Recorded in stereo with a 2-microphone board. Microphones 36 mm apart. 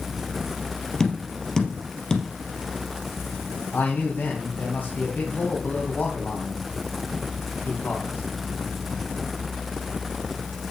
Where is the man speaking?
70° left (ahead or behind), 3 m.